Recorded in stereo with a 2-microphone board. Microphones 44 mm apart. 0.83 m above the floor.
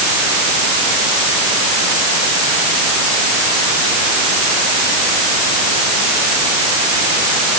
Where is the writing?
No writing in this recording.